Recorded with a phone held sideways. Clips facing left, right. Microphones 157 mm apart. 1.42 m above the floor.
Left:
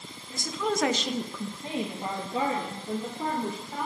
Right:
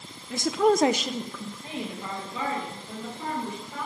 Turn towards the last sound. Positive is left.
turn(degrees=45)  # may be behind; listen again after turning